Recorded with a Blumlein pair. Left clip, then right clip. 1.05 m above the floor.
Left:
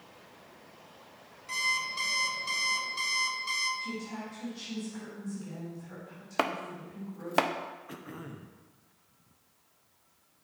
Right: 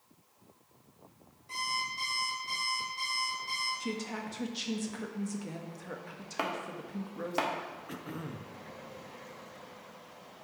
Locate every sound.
1.5 s an alarm clock: 40° left, 1.7 m
3.8 s a woman speaking: 60° right, 1.1 m
6.4 s chopping: 70° left, 0.5 m
7.9 s throat clearing: 5° right, 0.5 m